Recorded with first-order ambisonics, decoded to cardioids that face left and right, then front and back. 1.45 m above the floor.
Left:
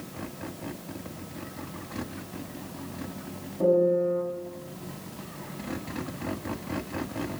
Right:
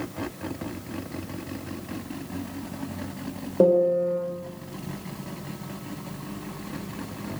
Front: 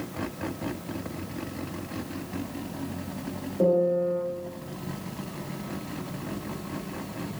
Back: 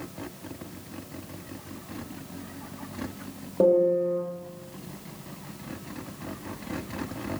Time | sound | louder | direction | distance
3.6 | a piano | right 3 dB, back 2 dB | 110° right | 0.8 m